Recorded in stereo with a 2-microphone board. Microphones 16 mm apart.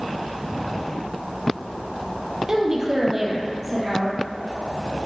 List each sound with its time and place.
2.5 s a woman speaking: 35° right (ahead or behind), 4 m; by 4.2 s 5° right (ahead or behind), 5 m